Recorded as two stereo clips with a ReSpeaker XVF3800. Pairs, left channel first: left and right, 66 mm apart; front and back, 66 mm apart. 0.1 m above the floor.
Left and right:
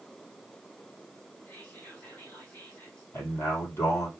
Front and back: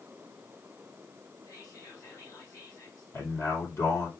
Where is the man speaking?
40° left, 4 m.